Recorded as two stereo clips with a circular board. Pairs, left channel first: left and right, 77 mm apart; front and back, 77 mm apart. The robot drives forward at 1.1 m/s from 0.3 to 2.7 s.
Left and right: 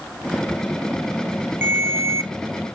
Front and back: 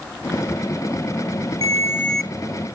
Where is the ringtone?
30° right, 0.9 m; by 2.3 s 100° right, 0.6 m.